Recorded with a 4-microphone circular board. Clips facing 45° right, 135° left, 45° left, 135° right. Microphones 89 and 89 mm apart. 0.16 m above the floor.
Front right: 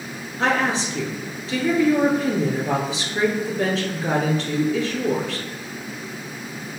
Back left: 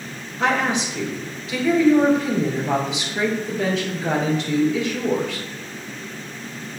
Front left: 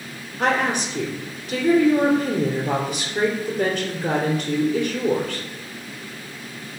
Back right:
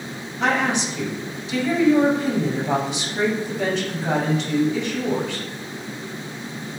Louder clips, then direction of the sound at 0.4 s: Even, even; 5° left.